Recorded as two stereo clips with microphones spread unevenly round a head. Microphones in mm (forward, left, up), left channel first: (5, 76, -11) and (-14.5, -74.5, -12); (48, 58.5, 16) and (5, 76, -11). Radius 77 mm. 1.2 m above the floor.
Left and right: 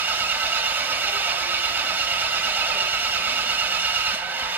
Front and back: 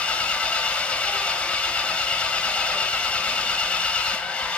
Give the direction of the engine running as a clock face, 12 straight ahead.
1 o'clock.